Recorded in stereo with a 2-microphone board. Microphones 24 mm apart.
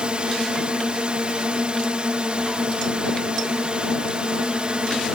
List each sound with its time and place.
0.0 s a drone: 45° right (ahead or behind)